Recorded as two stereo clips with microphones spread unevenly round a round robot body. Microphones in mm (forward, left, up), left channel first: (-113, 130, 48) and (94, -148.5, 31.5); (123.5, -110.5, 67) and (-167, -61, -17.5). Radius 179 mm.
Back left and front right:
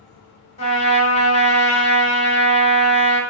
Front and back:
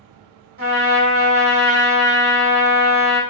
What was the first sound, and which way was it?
A trumpet, 165° right.